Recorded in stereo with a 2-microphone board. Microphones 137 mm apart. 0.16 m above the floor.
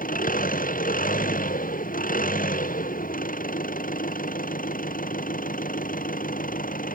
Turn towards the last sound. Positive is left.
turn(degrees=85)